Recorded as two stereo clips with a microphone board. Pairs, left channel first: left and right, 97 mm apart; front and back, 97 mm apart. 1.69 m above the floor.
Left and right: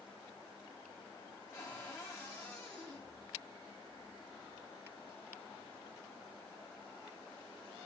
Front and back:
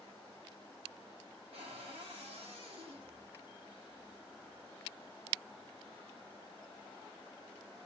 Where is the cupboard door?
155° left, 1.5 m.